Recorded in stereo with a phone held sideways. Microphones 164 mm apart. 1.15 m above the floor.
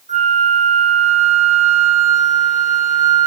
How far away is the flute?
About 0.6 m.